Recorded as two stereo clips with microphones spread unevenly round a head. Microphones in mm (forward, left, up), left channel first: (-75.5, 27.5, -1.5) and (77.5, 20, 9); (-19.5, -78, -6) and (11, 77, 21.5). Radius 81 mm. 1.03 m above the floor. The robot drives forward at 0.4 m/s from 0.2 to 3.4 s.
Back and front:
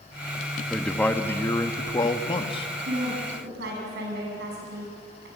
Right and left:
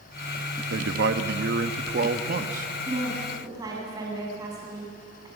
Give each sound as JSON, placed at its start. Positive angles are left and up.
{"t": 0.7, "sound": "a man speaking", "azimuth_deg": 90, "distance_m": 1.3}
{"t": 2.9, "sound": "a woman speaking", "azimuth_deg": 10, "distance_m": 7.5}